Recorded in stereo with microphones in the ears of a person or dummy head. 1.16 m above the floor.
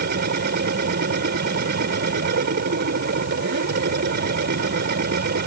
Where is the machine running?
60° right (ahead or behind).